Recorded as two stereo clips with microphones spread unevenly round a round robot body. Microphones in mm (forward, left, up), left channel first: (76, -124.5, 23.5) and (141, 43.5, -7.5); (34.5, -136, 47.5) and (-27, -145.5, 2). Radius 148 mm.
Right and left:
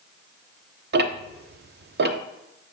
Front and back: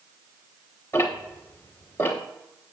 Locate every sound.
0.9 s ticking: 95° left, 0.6 m